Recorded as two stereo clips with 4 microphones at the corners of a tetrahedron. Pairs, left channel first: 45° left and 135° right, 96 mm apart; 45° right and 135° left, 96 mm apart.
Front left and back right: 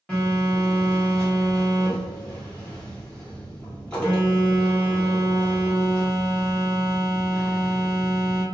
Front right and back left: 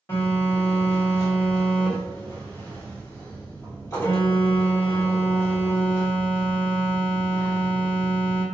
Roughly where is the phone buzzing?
Ahead right.